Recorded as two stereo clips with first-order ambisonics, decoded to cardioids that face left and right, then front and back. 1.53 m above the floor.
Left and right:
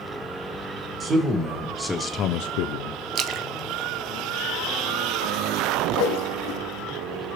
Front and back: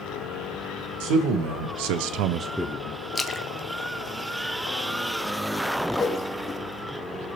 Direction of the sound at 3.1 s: 70° right.